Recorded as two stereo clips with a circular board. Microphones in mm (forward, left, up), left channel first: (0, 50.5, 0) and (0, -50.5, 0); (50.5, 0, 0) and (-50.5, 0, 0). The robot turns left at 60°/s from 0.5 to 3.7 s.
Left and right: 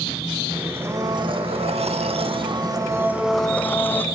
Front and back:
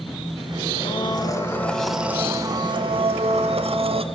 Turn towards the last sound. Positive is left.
turn(degrees=160)